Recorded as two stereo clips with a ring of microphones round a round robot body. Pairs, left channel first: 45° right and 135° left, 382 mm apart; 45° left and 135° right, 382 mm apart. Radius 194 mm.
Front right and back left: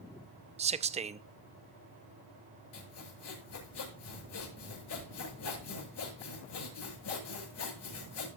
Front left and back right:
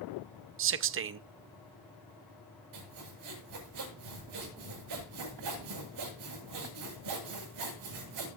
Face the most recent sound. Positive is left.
turn(degrees=-95)